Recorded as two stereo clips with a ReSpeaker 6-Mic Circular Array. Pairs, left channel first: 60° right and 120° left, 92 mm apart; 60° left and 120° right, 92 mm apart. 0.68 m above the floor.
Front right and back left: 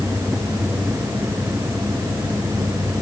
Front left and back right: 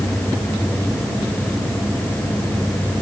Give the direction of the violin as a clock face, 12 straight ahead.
I don't hear a violin.